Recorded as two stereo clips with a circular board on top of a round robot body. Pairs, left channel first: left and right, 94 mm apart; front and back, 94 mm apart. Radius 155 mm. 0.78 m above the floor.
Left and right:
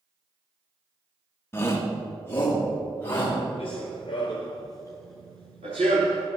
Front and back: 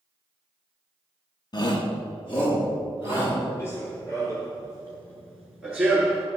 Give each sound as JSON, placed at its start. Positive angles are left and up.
{"t": 1.5, "sound": "a shout", "azimuth_deg": 30, "distance_m": 1.1}
{"t": 3.6, "sound": "running footsteps", "azimuth_deg": 65, "distance_m": 1.4}